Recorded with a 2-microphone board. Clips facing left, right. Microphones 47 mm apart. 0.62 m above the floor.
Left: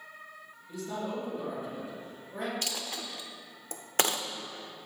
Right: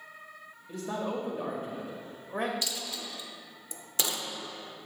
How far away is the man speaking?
About 2.5 m.